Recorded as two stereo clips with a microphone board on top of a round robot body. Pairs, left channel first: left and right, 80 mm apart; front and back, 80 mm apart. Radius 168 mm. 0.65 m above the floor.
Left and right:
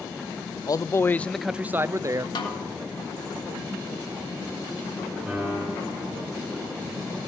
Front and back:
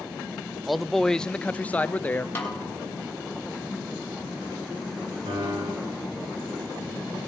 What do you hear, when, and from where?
0.7 s a man speaking: 90° left, 0.6 m; by 2.2 s 65° right, 0.7 m
2.4 s a snare drum: 65° left, 3 m
5.3 s a piano: 175° right, 7 m